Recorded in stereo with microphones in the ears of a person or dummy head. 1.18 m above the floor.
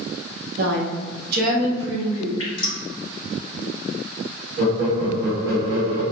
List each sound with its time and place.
0.6 s a woman speaking: 50° right (ahead or behind), 0.6 m; by 2.3 s 25° right (ahead or behind), 1.2 m
2.4 s dripping: 35° left (ahead or behind), 1.7 m
4.6 s laughter: 60° right (ahead or behind), 1.2 m